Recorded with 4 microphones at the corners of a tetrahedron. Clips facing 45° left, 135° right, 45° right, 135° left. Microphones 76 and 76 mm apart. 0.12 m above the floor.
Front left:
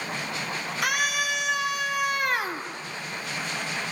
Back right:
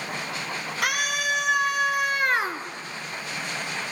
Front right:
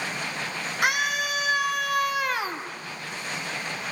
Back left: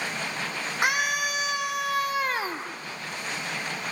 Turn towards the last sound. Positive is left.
turn(degrees=170)